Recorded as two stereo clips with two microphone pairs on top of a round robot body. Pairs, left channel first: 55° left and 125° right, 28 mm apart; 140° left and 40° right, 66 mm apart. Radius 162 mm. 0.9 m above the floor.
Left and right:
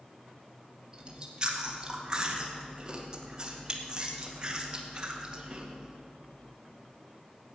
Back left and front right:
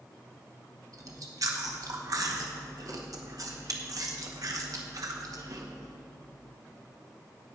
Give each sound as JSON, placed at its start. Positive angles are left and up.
{"t": 0.9, "sound": "chewing", "azimuth_deg": -60, "distance_m": 2.0}